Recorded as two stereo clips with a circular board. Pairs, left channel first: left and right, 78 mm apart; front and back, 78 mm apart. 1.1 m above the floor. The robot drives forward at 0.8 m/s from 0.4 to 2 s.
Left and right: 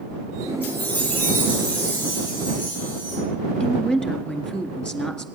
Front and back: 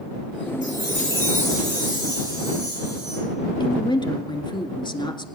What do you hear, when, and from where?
0.6 s a chime: 155° left, 9 m; by 3.2 s 160° left, 10 m
3.6 s a woman speaking: 10° left, 1.7 m